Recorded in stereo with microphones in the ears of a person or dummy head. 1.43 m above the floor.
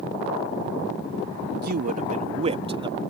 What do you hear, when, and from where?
1.6 s a man speaking: 55° right (ahead or behind); by 3.0 s 30° right (ahead or behind)